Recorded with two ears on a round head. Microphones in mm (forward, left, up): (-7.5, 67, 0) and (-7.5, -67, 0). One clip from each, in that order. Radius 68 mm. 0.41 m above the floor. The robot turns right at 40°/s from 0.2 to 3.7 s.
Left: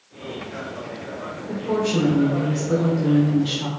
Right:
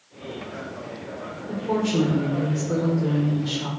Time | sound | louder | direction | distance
1.5 | a woman speaking | left 2 dB | 5° left (ahead or behind) | 0.9 m